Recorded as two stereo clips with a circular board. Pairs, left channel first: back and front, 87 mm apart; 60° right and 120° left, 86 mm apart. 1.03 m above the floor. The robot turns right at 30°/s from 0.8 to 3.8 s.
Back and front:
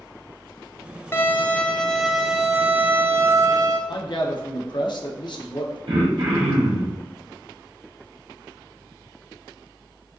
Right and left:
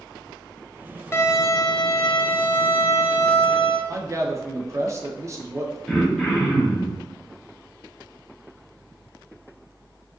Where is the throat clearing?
25° left, 1.1 m.